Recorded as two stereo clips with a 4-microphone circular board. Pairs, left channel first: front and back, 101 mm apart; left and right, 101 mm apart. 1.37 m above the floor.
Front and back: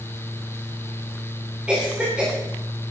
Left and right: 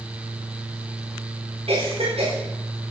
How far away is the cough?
About 5 m.